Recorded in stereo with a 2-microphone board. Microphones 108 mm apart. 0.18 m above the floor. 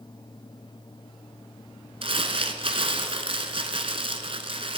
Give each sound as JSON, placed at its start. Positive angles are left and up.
{"t": 2.0, "sound": "crumpling", "side_deg": -60, "distance_m": 1.1}